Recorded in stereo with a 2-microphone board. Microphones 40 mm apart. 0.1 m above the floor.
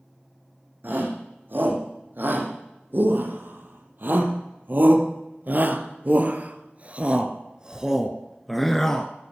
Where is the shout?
55° right (ahead or behind), 5 m; by 9.1 s 15° left (ahead or behind), 1.3 m.